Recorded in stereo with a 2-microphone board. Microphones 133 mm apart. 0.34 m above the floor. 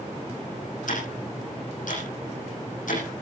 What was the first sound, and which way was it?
Ticking, 80° left.